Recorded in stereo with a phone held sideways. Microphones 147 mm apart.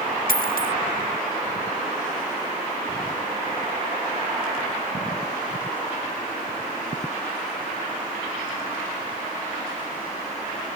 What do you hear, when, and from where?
0.3 s a dropped coin: 75° left (ahead or behind)